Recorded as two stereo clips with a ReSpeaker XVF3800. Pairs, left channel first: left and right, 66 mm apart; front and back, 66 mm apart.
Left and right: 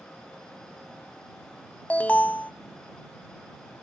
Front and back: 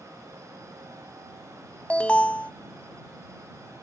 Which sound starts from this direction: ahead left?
An alarm, at 1.9 s.